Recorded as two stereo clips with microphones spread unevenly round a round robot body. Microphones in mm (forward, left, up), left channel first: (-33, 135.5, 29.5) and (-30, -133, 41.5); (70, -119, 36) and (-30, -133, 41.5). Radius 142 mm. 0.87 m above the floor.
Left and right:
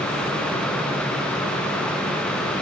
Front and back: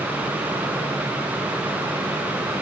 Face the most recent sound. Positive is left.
No sound to turn to.